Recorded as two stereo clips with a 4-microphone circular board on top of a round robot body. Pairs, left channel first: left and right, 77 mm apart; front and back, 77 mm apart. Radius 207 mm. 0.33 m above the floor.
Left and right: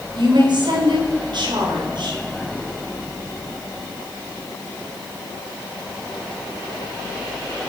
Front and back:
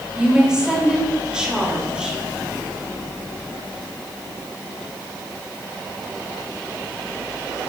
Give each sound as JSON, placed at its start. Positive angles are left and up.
{"t": 0.1, "sound": "a woman speaking", "azimuth_deg": -100, "distance_m": 3.0}